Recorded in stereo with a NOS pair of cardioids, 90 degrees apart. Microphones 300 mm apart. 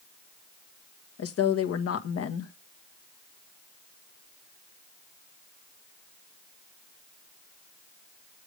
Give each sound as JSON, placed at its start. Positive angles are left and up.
{"t": 1.2, "sound": "a woman speaking", "azimuth_deg": 60, "distance_m": 1.8}